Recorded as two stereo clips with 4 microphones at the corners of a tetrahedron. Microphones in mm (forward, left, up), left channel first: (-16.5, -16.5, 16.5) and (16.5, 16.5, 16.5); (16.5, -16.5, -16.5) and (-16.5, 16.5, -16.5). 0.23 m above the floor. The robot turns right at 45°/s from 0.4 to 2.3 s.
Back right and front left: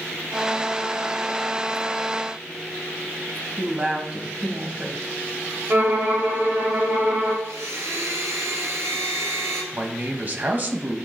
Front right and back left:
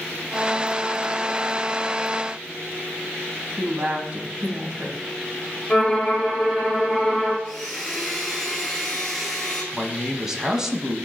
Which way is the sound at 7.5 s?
40° left.